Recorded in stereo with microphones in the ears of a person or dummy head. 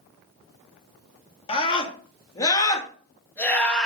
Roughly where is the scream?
Left.